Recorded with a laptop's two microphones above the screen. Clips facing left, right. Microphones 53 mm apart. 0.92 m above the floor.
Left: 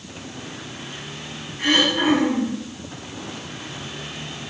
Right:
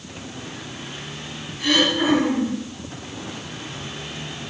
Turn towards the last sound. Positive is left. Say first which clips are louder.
# left 1 dB
turn(degrees=30)  # may be behind; listen again after turning